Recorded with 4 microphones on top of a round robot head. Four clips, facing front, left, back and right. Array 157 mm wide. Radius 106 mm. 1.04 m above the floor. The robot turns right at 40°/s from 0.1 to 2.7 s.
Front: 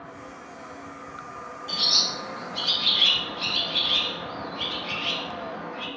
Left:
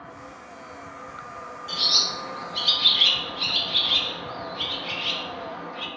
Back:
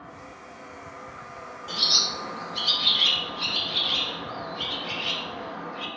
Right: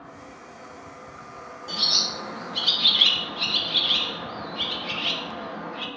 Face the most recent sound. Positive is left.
turn(degrees=-100)